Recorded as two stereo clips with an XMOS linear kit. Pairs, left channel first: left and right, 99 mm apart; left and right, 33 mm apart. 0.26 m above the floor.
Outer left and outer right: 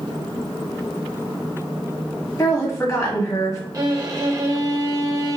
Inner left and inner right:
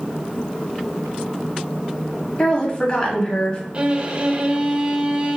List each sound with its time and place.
2.4 s a woman speaking: 35° left (ahead or behind), 1.3 m
3.7 s a violin: 35° right (ahead or behind), 0.6 m